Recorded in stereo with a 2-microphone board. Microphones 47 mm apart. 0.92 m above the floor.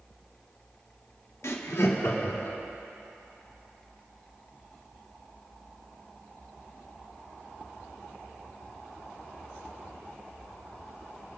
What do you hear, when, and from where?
1.4 s laughter: 70° left (ahead or behind), 1.2 m; by 2.6 s 65° left (ahead or behind), 2.5 m